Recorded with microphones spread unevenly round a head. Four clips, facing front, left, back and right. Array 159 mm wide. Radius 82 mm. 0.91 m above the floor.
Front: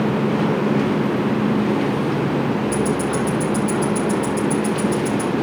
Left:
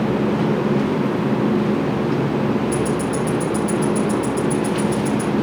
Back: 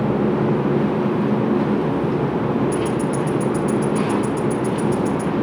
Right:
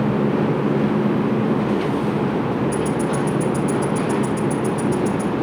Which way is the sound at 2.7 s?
90° left.